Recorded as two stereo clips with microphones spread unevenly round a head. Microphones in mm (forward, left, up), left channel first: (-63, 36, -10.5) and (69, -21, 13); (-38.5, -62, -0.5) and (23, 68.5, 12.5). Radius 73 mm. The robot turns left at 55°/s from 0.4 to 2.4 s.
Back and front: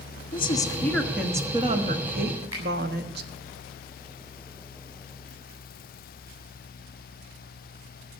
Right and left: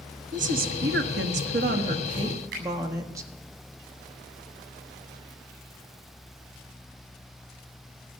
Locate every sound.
0.3 s a woman speaking: 105° left, 1.4 m; by 3.3 s 5° right, 1.4 m
2.5 s a finger snap: 25° left, 7.5 m